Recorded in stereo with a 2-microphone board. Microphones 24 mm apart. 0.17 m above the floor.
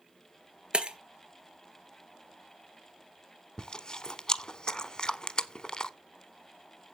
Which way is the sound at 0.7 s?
45° right (ahead or behind).